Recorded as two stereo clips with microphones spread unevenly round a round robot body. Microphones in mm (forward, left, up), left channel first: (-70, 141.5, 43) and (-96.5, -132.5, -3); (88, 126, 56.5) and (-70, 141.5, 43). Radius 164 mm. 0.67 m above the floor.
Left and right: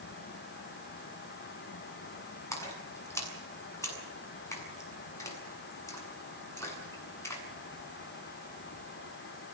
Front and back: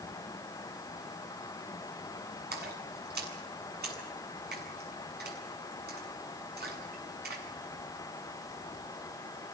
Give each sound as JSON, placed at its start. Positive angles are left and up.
{"t": 2.5, "sound": "a splash", "azimuth_deg": 165, "distance_m": 8.0}